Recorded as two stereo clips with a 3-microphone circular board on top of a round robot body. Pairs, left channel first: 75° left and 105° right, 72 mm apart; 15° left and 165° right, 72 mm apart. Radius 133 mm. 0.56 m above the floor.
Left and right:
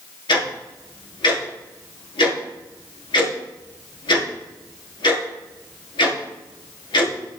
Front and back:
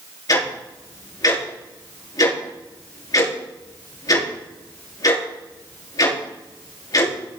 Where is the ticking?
55° left, 5 m.